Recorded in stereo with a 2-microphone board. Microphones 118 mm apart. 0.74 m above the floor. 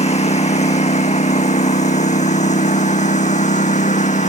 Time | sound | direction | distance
0.0 | a lawn mower | 70° left (ahead or behind) | ?